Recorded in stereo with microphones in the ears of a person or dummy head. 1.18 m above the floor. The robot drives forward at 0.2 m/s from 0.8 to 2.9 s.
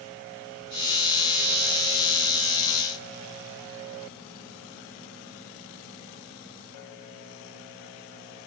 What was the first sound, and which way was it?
Only background noise.